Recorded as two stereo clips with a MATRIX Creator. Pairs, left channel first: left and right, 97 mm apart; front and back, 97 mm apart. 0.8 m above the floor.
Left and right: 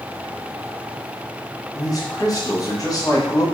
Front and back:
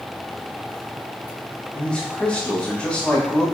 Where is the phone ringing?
No phone ringing in this recording.